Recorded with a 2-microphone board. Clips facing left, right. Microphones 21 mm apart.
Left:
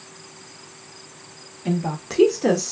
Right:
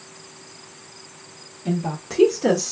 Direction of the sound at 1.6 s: 30° left (ahead or behind).